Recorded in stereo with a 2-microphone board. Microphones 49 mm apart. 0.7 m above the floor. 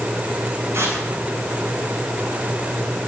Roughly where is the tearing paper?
Right.